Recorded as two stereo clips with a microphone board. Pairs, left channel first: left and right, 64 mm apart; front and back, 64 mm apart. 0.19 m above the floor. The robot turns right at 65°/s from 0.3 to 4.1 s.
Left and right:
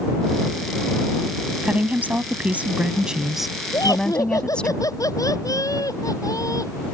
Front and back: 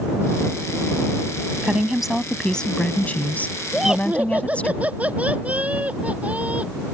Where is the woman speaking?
125° right; by 4.7 s 35° left.